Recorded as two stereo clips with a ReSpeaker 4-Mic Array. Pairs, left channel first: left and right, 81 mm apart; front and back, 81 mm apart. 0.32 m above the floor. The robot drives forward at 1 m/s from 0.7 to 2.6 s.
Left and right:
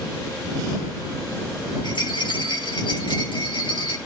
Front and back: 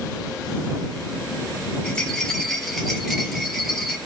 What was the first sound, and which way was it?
A rattle, 75° left.